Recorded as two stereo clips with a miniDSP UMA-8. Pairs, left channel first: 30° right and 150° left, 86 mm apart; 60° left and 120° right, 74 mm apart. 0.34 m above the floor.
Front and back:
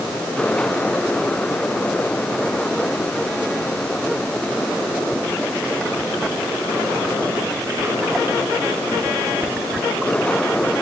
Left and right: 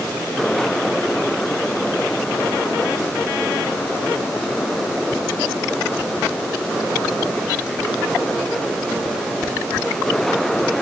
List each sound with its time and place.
Only background noise.